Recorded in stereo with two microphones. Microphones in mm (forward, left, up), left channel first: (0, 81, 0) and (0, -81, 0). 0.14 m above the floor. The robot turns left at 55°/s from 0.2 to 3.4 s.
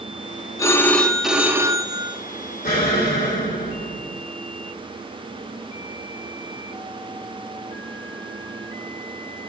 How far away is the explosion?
About 5 m.